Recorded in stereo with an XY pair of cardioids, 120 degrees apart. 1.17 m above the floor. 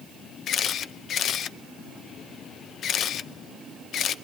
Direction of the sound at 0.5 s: 55° left.